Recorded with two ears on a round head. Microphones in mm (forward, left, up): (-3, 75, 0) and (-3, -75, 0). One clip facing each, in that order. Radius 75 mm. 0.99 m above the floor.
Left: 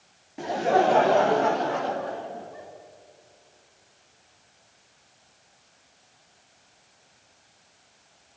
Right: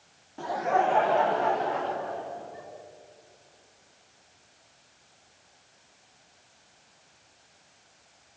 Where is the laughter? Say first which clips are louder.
Left 4 dB; 20° left (ahead or behind), 0.8 m; by 2.7 s 55° left (ahead or behind), 3 m.